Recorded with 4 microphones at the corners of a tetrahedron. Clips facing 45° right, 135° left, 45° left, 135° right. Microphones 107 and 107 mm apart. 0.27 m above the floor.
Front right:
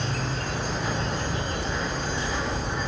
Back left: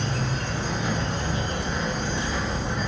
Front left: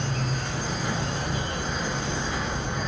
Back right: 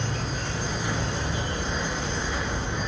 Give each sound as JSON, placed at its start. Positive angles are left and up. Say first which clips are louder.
{"t": 0.0, "sound": "an insect", "louder": "back left 1 dB, front left 1 dB", "azimuth_deg": 85, "distance_m": 2.5}